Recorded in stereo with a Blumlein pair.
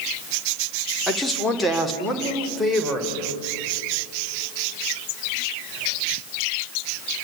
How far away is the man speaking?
About 2.5 m.